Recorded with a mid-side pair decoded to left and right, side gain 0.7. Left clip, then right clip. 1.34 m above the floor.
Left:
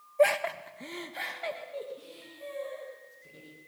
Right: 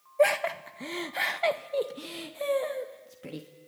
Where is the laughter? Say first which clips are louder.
Right 1 dB; straight ahead, 1.8 m; by 3.5 s 75° right, 3 m.